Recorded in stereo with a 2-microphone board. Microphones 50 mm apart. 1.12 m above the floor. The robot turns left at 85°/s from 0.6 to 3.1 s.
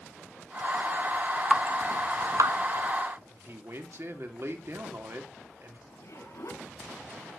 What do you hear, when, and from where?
1.5 s dripping: 20° right (ahead or behind), 0.7 m; by 2.6 s 65° right (ahead or behind), 0.7 m
3.3 s a man speaking: 55° right (ahead or behind), 2.5 m
5.9 s a zipper: 75° left (ahead or behind), 5 m